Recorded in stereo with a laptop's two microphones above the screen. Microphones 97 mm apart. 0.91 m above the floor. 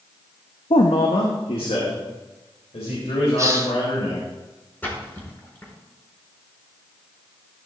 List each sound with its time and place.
0.7 s a man speaking: 65° left (ahead or behind), 0.8 m; by 4.2 s 75° left (ahead or behind), 5 m
3.4 s a hiss: 30° right (ahead or behind), 1.0 m
4.8 s a splash: 20° left (ahead or behind), 4.5 m